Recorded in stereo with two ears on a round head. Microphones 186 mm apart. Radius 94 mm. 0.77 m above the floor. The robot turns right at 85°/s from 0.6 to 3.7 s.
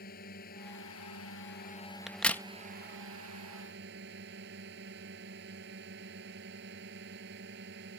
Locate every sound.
0.0 s a drone: 45° left; by 8.0 s 50° right
2.1 s a crack: centre (ahead or behind); by 2.4 s 10° left (ahead or behind)